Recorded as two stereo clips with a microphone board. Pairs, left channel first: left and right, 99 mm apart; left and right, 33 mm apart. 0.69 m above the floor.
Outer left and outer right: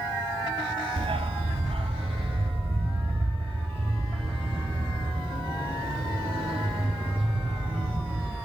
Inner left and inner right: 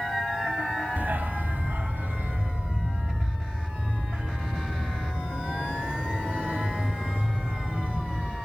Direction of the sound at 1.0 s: 80° right.